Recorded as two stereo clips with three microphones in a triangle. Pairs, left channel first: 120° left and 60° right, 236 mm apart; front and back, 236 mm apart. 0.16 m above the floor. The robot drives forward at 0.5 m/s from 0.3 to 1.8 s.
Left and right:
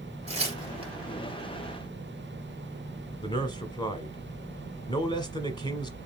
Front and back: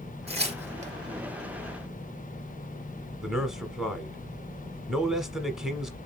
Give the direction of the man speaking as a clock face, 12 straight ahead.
9 o'clock.